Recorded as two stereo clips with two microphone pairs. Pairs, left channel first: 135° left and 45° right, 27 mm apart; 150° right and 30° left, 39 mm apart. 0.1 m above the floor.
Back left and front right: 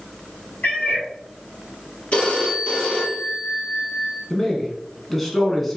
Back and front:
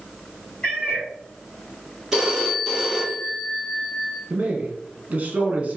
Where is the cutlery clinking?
I don't hear cutlery clinking.